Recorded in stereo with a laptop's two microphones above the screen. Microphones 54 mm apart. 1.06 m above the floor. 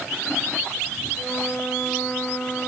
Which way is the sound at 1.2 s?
20° left (ahead or behind).